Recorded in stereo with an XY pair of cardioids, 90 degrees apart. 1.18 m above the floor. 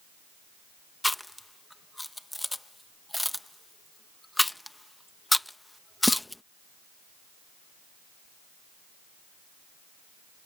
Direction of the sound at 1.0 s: 10° left.